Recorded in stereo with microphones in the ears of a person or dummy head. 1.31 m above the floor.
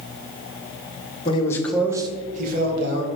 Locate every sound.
1.2 s a man speaking: 30° left (ahead or behind), 1.4 m; by 3.1 s 70° right (ahead or behind), 2 m